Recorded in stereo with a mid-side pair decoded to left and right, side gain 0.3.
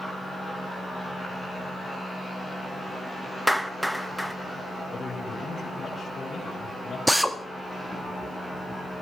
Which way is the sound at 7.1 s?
Straight ahead.